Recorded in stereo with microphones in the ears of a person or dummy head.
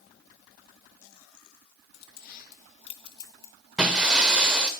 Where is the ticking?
I don't hear ticking.